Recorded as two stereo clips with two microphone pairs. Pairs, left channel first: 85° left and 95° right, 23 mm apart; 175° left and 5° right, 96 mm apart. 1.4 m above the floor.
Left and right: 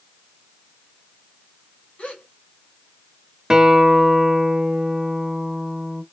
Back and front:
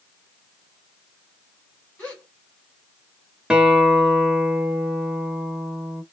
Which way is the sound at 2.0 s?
100° left.